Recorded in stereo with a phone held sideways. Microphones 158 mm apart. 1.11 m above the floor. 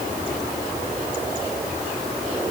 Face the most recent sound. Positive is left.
No sound to turn to.